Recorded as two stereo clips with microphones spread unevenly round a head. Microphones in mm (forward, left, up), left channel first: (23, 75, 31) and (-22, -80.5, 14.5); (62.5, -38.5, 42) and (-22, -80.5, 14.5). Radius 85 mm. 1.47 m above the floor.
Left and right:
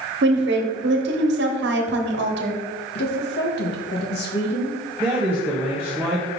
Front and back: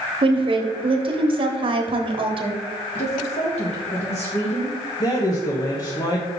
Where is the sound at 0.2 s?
125° right, 1.2 m.